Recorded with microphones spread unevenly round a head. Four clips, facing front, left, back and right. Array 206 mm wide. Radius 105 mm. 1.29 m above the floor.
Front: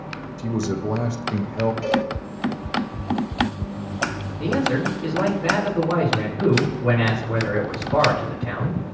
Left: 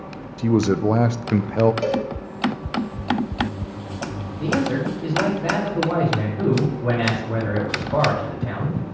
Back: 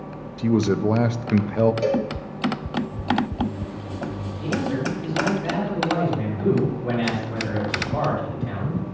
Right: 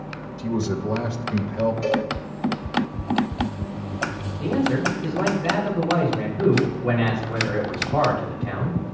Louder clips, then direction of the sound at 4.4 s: Even, front 3 dB; 45° left.